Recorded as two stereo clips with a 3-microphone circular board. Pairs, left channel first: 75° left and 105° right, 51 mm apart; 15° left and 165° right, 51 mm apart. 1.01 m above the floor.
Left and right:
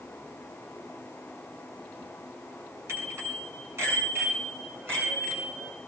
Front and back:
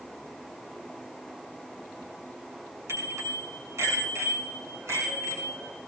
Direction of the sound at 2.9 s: 140° right.